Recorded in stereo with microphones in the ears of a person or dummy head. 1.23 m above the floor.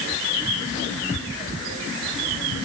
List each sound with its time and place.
Only background noise.